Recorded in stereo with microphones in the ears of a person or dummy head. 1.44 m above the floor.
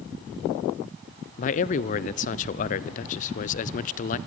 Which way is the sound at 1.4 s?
40° left (ahead or behind).